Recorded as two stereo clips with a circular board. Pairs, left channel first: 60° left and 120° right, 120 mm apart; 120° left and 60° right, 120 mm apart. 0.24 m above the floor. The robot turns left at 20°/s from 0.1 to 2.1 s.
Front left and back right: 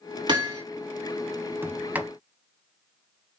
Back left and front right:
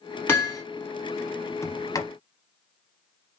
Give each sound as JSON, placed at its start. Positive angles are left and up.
{"t": 0.3, "sound": "hammering", "azimuth_deg": -170, "distance_m": 1.8}
{"t": 1.6, "sound": "a sliding door", "azimuth_deg": 175, "distance_m": 0.8}